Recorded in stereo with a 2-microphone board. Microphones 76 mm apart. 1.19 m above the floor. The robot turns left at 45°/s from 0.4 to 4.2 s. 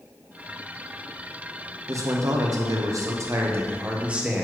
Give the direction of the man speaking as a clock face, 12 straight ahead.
2 o'clock.